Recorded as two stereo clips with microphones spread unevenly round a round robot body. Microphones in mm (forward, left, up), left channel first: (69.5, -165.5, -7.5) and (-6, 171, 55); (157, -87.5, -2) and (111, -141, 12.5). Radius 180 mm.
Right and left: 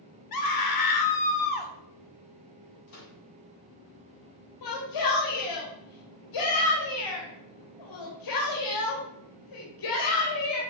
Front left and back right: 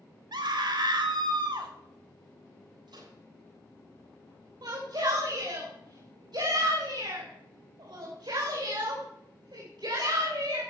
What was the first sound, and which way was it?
A scream, 110° right.